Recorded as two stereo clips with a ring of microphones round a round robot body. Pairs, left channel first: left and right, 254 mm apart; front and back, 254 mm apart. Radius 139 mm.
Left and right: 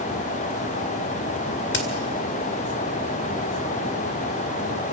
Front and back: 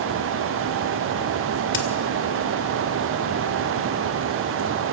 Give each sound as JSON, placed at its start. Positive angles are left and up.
{"t": 1.7, "sound": "a crack", "azimuth_deg": 45, "distance_m": 2.5}